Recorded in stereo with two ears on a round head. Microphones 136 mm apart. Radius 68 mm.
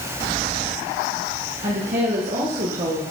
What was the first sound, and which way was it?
A woman speaking, 50° right (ahead or behind).